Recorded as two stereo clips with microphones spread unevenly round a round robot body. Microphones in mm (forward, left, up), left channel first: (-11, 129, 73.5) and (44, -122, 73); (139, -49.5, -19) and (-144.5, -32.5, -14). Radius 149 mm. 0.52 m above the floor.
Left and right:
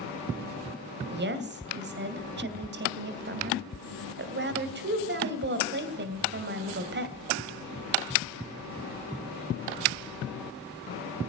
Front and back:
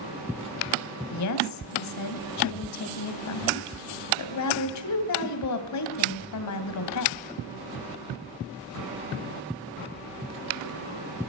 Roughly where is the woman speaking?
Ahead right.